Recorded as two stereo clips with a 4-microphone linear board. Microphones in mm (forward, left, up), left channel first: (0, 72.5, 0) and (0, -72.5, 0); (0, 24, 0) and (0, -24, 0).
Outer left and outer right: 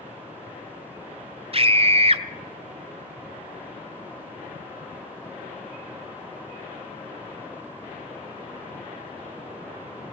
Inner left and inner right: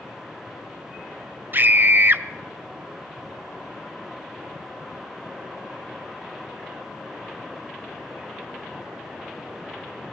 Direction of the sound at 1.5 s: 45° right (ahead or behind).